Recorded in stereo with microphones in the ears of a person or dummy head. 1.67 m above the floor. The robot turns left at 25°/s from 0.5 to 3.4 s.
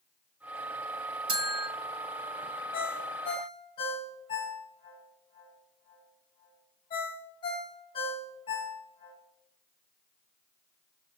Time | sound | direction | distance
1.3 | a bell | 25° right (ahead or behind) | 0.8 m
2.7 | a ringtone | 40° left (ahead or behind) | 1.0 m